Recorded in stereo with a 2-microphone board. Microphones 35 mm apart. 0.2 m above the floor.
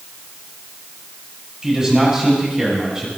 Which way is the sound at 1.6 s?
20° right (ahead or behind).